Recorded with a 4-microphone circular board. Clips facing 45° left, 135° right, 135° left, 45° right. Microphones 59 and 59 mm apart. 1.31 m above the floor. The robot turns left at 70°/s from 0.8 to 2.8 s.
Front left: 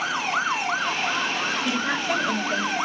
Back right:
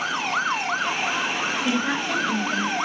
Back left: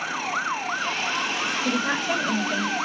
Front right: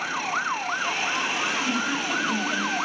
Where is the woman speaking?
160° left, 2.5 m; by 2.8 s 80° left, 2.5 m.